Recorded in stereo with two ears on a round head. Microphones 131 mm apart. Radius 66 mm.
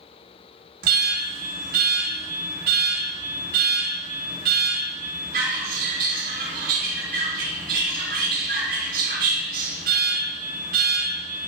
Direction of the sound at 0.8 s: 75° right (ahead or behind).